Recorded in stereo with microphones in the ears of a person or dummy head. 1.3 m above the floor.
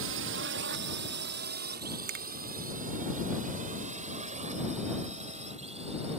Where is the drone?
65° right (ahead or behind); by 6.2 s 30° right (ahead or behind).